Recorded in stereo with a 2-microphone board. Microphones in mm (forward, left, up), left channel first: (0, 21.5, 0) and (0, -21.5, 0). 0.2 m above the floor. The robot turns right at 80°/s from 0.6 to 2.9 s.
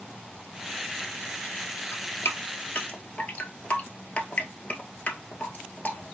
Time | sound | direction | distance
1.9 | dripping | 60° left (ahead or behind) | 0.6 m